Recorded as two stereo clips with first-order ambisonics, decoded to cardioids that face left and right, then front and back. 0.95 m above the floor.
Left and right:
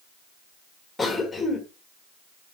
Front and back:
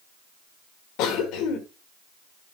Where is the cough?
10° left, 1.6 m.